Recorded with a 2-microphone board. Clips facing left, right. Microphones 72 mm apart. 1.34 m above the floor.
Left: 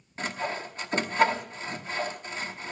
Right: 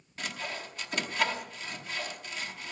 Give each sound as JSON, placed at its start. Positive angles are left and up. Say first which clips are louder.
{"t": 0.2, "sound": "sawing", "louder": "left 6 dB", "side_deg": 30, "distance_m": 1.0}